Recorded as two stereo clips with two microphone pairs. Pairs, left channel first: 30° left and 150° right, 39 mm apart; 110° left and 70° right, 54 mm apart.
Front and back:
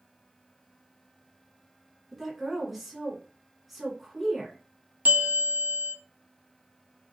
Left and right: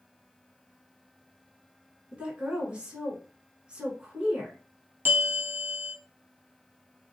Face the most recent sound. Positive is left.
turn(degrees=-120)